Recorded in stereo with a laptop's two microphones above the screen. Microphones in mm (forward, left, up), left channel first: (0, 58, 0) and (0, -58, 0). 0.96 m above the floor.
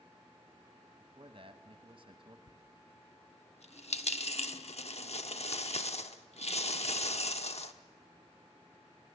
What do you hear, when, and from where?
1.0 s a man speaking: 50° right (ahead or behind), 1.2 m
2.5 s a dropped coin: 65° left (ahead or behind), 1.0 m